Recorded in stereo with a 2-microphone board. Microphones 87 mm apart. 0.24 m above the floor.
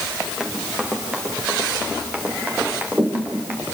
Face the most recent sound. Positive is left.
turn(degrees=-20)  # may be behind; listen again after turning